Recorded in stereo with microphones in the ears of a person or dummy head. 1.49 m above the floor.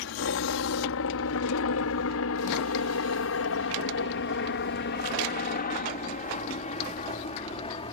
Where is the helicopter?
60° left (ahead or behind); by 7.9 s 25° left (ahead or behind).